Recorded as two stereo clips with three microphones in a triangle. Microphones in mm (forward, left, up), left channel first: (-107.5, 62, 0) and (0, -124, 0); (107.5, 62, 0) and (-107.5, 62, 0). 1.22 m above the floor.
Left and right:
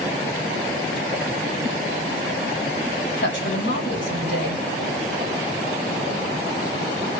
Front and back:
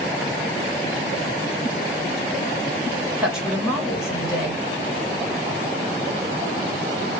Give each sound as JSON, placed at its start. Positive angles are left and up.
{"t": 3.2, "sound": "a woman speaking", "azimuth_deg": 90, "distance_m": 2.5}